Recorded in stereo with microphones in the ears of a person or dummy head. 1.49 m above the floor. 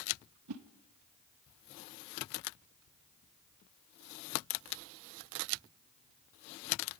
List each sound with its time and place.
0.5 s a whoosh: 80° right, 0.9 m